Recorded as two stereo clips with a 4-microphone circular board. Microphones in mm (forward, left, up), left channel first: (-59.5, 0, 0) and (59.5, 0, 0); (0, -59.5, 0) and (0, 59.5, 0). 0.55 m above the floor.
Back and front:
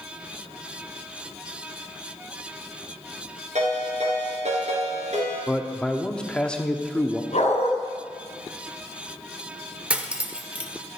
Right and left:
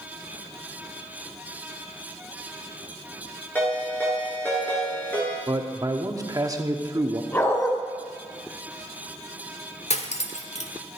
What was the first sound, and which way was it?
A ringtone, 15° right.